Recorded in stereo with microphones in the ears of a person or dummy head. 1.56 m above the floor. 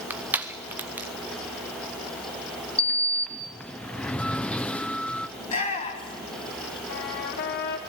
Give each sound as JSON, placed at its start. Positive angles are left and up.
{"t": 0.1, "sound": "crushing", "side_deg": -10, "distance_m": 1.0}
{"t": 2.8, "sound": "a sliding door", "side_deg": 5, "distance_m": 0.7}
{"t": 5.4, "sound": "a shout", "side_deg": 40, "distance_m": 4.5}
{"t": 6.9, "sound": "a trumpet", "side_deg": 65, "distance_m": 4.0}